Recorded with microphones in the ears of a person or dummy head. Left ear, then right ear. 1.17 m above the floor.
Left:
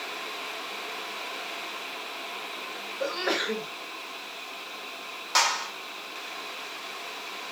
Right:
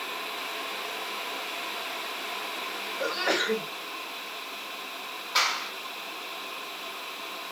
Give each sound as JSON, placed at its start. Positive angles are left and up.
{"t": 3.0, "sound": "a sneeze", "side_deg": -5, "distance_m": 1.3}
{"t": 5.3, "sound": "a clap", "side_deg": 65, "distance_m": 4.0}